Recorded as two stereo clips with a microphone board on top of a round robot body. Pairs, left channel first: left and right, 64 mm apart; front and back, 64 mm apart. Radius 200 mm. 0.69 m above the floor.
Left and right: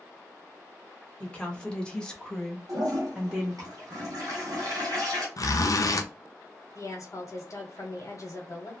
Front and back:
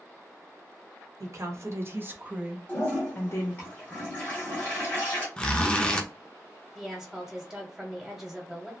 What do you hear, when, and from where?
1.2 s a woman speaking: 160° left, 1.4 m; by 3.7 s 15° right, 1.1 m
2.7 s a toilet flushing: 65° right, 1.2 m
5.4 s a zipper: 75° left, 0.7 m
6.8 s a woman speaking: 95° left, 1.3 m